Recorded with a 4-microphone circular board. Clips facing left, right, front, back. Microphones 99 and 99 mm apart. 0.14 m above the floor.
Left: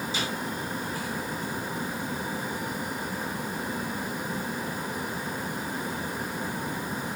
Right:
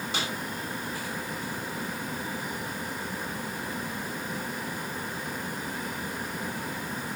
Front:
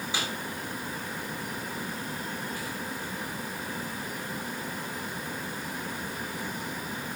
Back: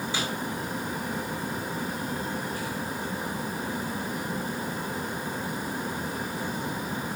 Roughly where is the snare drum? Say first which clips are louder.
Right 1 dB, back 1 dB; right.